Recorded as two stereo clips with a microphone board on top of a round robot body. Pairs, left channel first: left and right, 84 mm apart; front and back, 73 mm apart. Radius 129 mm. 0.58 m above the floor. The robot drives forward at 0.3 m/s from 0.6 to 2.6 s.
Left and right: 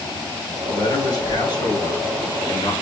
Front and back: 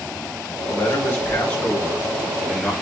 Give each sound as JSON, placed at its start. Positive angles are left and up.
{"t": 0.7, "sound": "a man speaking", "azimuth_deg": 60, "distance_m": 1.8}